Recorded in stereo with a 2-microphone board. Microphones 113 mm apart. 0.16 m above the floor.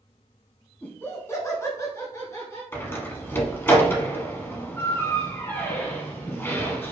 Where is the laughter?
15° left (ahead or behind), 1.1 m; by 2.6 s 25° left (ahead or behind), 2.5 m.